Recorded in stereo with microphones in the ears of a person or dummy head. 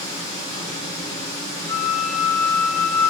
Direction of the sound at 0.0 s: 50° left (ahead or behind).